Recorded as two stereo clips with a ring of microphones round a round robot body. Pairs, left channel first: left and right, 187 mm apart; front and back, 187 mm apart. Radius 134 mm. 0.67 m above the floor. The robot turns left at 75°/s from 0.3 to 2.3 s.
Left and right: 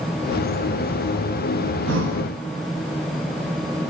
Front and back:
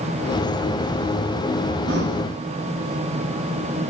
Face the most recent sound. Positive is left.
turn(degrees=-155)